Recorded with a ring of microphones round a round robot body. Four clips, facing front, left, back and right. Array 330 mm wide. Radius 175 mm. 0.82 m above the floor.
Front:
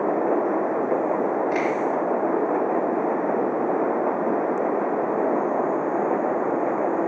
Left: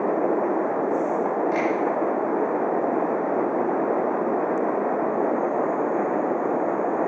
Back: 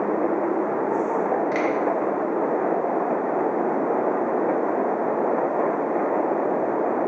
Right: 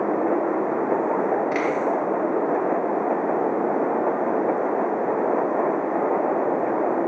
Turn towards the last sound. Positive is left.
turn(degrees=-125)